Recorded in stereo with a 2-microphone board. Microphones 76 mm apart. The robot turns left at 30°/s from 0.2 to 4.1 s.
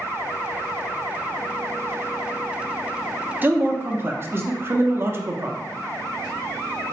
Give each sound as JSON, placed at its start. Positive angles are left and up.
{"t": 3.4, "sound": "a man speaking", "side_deg": -25, "distance_m": 0.6}